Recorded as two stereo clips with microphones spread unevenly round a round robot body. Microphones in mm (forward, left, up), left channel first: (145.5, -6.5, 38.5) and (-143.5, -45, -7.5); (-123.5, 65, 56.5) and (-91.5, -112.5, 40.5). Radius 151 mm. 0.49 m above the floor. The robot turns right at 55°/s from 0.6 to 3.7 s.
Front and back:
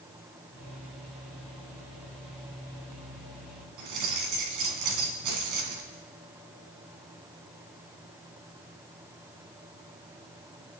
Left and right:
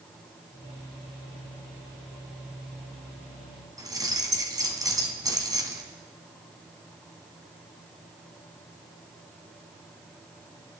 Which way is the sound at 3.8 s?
150° right.